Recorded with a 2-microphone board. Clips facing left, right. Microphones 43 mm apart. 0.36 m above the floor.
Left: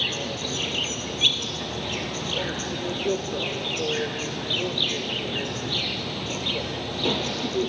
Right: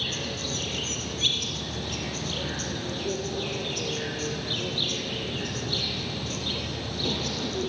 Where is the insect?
40° left (ahead or behind), 1.4 m.